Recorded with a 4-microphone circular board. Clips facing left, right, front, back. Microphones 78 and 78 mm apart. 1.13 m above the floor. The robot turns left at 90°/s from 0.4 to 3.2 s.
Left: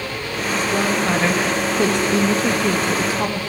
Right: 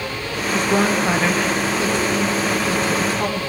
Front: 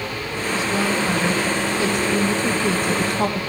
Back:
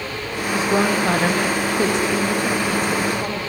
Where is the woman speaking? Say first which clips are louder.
Right 2 dB, back 4 dB; 115° right, 1.1 m; by 3.4 s 5° left, 1.1 m.